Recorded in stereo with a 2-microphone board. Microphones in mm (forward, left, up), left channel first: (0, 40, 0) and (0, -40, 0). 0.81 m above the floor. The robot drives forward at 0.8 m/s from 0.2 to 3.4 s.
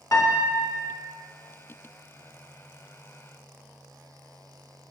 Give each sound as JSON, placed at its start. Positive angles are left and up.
{"t": 0.1, "sound": "a piano", "side_deg": 45, "distance_m": 0.6}